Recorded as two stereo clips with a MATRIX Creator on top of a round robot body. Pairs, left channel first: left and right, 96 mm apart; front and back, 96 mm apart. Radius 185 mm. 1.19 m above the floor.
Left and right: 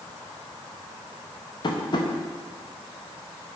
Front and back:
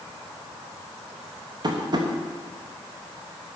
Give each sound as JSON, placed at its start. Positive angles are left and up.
{"t": 1.6, "sound": "tapping", "azimuth_deg": 135, "distance_m": 1.0}